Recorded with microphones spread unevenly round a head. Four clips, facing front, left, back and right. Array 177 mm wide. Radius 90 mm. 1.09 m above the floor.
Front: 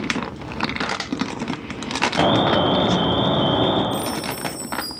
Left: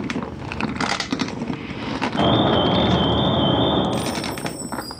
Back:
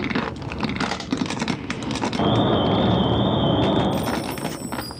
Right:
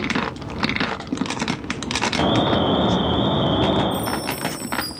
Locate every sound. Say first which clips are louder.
2.2 s an alarm: left 2 dB, front 2 dB; 15° left, 6 m
3.9 s a chime: even, back 1 dB; 70° right, 2.0 m